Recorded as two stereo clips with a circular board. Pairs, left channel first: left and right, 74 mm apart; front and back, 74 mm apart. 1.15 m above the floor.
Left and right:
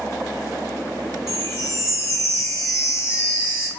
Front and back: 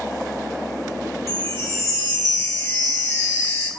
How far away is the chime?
About 1.2 m.